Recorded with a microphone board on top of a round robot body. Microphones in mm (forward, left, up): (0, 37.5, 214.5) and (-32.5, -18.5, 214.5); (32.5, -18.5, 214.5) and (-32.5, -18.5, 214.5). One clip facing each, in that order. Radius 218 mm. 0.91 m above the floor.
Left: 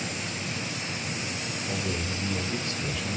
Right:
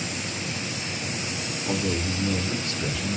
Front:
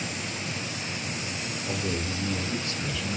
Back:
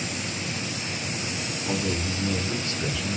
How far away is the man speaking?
About 1.9 m.